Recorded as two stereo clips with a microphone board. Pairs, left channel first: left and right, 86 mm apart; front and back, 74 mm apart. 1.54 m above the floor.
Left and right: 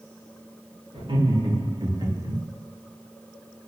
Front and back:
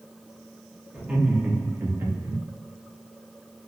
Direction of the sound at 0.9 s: 100° right.